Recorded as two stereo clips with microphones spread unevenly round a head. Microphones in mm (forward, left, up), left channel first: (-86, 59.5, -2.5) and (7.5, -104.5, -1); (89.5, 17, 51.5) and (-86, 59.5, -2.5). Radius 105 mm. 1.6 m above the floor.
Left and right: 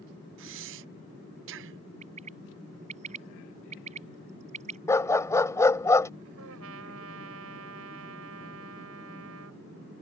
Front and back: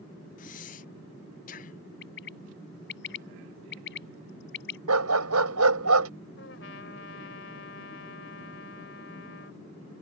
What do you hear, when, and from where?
0.4 s breathing: 55° right
2.0 s a bird: straight ahead
4.9 s a dog barking: 165° right
6.4 s a trumpet: 50° right